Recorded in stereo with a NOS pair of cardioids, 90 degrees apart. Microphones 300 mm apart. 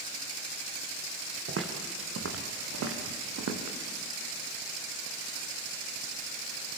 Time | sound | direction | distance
1.5 | footsteps | 45° right | 4 m